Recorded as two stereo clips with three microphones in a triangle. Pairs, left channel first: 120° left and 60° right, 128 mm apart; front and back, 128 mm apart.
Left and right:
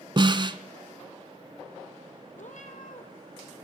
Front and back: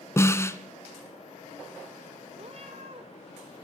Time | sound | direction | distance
0.2 | a snare drum | 55° right | 1.1 m
2.4 | a cat meowing | 140° left | 1.8 m